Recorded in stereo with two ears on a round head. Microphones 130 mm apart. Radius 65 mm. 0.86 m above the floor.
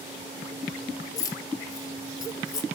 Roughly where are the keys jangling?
Left.